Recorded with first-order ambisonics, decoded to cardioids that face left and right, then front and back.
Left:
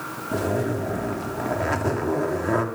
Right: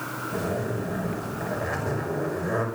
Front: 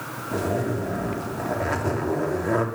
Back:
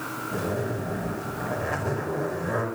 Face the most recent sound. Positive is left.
turn(degrees=60)